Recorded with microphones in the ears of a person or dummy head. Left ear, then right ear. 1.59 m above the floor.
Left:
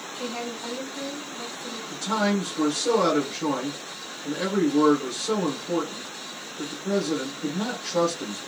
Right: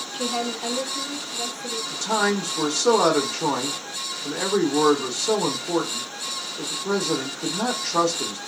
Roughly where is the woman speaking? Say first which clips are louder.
Right 6 dB; right.